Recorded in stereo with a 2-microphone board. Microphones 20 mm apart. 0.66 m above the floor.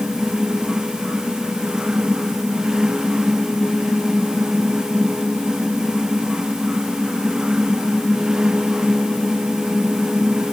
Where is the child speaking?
No child speaking in this recording.